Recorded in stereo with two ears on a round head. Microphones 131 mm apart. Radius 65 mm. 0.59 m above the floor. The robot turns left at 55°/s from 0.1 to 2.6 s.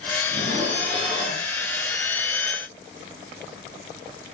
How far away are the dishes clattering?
About 9 m.